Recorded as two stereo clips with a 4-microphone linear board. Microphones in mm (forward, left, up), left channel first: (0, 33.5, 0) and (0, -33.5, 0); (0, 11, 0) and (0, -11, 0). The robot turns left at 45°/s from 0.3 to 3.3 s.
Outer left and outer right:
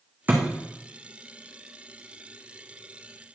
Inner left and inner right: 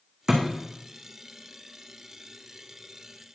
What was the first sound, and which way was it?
A thud, 25° right (ahead or behind).